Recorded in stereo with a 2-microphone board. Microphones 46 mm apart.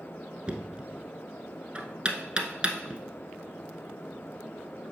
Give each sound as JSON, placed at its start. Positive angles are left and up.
{"t": 0.5, "sound": "knocking", "side_deg": -25, "distance_m": 0.9}